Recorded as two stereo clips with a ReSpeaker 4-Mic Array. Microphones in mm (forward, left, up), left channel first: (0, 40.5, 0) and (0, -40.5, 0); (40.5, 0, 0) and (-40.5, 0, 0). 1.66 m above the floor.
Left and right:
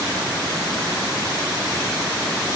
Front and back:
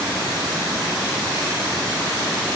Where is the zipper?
No zipper in this recording.